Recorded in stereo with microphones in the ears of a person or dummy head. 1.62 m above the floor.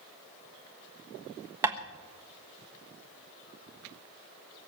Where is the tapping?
15° right (ahead or behind), 1.2 m.